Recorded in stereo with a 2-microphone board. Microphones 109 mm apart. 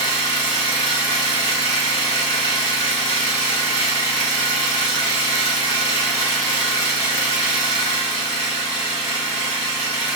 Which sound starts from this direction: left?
An engine running, at 0.0 s.